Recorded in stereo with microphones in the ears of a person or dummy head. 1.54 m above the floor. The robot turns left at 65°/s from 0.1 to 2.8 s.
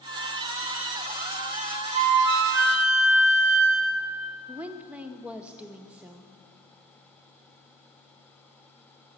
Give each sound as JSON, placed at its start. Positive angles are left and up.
{"t": 1.9, "sound": "a flute", "azimuth_deg": -40, "distance_m": 0.8}
{"t": 4.5, "sound": "a woman speaking", "side_deg": -10, "distance_m": 0.8}